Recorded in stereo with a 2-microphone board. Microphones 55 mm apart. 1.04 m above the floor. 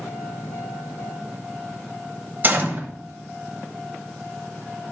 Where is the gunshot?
35° right (ahead or behind), 0.8 m.